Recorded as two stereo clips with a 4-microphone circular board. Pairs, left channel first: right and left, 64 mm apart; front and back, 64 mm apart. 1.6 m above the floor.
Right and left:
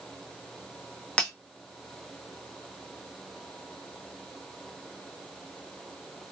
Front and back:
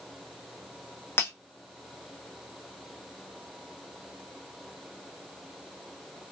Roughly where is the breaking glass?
Ahead right.